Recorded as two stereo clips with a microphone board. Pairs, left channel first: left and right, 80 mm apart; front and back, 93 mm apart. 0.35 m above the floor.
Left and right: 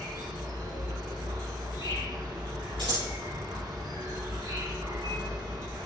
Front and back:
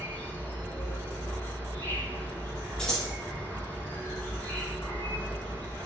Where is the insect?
70° right, 3.5 m.